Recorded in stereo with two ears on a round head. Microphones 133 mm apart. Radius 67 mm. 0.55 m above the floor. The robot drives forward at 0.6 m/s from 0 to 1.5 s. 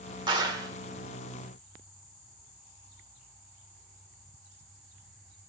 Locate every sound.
0.3 s a clap: 30° right (ahead or behind), 1.5 m; by 0.7 s 25° right (ahead or behind), 1.7 m